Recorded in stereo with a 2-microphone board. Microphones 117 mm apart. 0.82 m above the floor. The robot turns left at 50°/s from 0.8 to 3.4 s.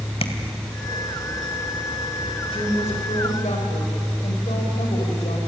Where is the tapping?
55° left (ahead or behind), 1.8 m.